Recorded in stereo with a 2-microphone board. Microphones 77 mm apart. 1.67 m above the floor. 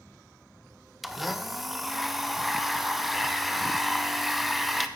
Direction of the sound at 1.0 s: Centre (ahead or behind).